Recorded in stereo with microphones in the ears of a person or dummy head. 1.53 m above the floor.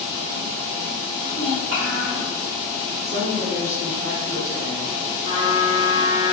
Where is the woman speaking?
40° right (ahead or behind), 1.8 m.